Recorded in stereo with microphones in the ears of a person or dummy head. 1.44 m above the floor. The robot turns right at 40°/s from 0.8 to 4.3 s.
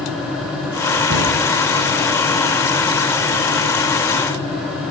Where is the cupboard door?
80° right, 6 m; by 1.3 s 75° right (ahead or behind), 6 m.